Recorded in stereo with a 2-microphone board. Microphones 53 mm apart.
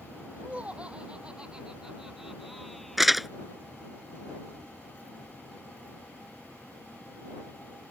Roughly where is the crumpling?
Centre.